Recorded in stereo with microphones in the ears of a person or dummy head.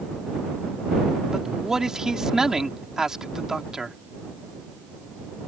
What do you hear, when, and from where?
1.3 s a man speaking: 5° right (ahead or behind)